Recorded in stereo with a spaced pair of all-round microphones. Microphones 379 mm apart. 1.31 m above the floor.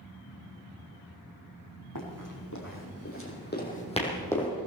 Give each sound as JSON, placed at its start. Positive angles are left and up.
{"t": 1.9, "sound": "running footsteps", "side_deg": 60, "distance_m": 4.5}